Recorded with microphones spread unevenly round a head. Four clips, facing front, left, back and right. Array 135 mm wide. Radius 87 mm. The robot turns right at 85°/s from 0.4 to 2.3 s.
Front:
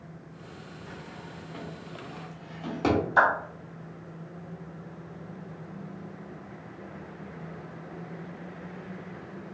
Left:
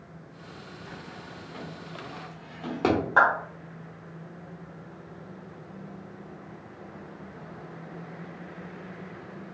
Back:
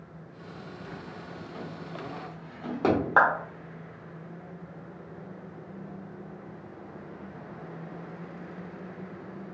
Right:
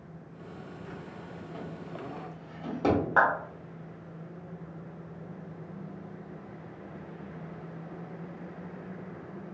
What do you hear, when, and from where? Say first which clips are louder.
0.9 s a drawer: even, even; 35° right, 1.4 m; by 3.0 s 85° left, 1.4 m
3.2 s a clap: left 4 dB, back 1 dB; 160° left, 1.3 m